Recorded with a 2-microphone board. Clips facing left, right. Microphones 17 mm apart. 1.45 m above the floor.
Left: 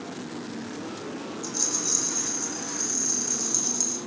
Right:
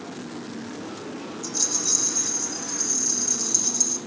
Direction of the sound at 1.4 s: 10° right (ahead or behind).